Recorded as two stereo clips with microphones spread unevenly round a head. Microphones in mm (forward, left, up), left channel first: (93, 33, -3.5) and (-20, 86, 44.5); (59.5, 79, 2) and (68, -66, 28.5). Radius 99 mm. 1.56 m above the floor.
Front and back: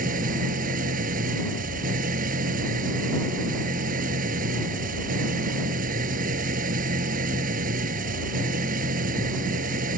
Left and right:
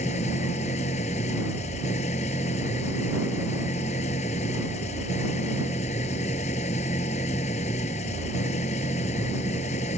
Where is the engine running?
155° left.